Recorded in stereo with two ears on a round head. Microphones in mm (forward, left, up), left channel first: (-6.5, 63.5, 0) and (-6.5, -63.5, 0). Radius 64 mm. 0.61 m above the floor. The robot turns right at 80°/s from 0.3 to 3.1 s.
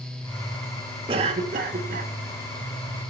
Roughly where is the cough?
Behind right.